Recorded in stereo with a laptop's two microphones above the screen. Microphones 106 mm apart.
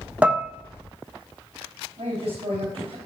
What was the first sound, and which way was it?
Dishes clattering, 10° right (ahead or behind).